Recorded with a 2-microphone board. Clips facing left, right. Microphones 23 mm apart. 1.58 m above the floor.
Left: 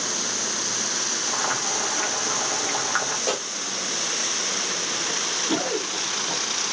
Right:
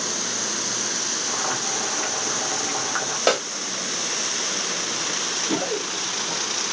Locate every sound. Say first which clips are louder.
1.3 s boiling: even; 20° left (ahead or behind), 1.0 m
3.3 s a snare drum: right 10 dB; 85° right, 1.0 m
5.1 s running footsteps: even; 10° left (ahead or behind), 1.6 m; by 6.4 s 40° left (ahead or behind), 1.9 m